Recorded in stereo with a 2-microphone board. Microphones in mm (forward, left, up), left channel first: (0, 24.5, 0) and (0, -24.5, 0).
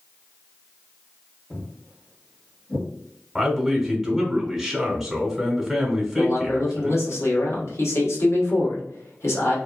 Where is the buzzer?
I don't hear a buzzer.